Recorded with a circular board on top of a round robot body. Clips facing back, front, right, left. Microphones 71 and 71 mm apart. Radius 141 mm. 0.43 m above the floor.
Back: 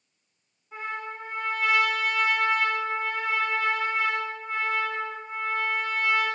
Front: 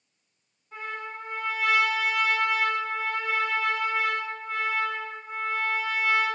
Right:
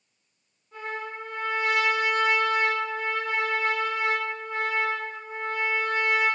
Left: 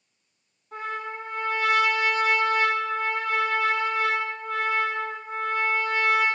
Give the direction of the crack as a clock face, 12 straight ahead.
No crack in this recording.